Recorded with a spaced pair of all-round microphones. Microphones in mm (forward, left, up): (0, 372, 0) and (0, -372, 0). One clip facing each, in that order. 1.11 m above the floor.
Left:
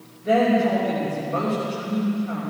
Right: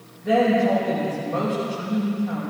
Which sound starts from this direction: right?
A woman speaking, at 0.2 s.